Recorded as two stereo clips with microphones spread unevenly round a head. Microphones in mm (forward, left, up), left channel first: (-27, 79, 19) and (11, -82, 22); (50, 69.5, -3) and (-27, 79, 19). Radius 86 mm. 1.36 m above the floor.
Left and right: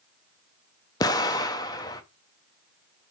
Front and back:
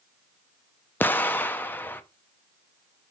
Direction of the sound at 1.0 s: 65° left.